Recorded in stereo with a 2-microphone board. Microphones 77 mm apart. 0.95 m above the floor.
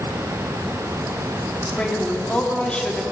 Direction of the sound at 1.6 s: 15° left (ahead or behind).